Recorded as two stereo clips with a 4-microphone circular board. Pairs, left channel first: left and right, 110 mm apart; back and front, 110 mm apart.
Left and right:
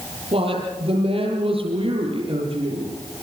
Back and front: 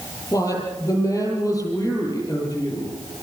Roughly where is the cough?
I don't hear a cough.